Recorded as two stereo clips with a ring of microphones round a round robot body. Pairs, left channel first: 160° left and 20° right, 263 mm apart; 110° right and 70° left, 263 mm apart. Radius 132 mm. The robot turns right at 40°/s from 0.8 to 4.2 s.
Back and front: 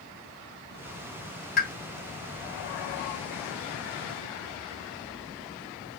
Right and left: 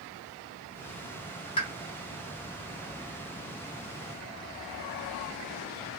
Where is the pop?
170° right, 1.6 m; by 1.7 s 165° right, 1.6 m.